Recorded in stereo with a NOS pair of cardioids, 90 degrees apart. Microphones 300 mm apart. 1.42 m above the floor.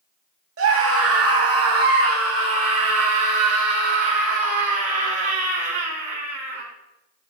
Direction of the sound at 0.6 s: 45° right.